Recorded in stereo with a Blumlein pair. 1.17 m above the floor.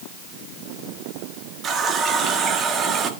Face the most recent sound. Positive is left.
turn(degrees=-25)